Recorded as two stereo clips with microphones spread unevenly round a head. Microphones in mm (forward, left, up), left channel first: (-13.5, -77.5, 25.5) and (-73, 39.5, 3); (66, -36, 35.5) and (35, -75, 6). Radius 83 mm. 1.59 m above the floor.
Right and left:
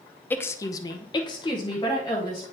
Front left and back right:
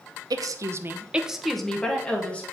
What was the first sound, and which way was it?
A woman speaking, 120° right.